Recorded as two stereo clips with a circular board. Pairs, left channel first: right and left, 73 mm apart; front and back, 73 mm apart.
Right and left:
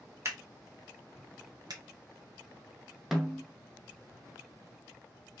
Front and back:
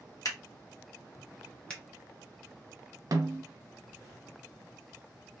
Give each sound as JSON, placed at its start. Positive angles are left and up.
{"t": 0.2, "sound": "scissors", "azimuth_deg": 40, "distance_m": 1.0}
{"t": 1.7, "sound": "a finger snap", "azimuth_deg": 75, "distance_m": 0.9}
{"t": 3.1, "sound": "a snare drum", "azimuth_deg": 175, "distance_m": 0.6}